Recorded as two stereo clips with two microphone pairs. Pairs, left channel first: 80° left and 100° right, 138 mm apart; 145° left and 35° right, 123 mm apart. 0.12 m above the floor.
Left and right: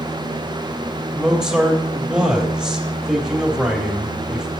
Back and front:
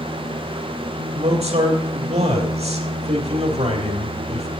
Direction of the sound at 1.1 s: 20° right.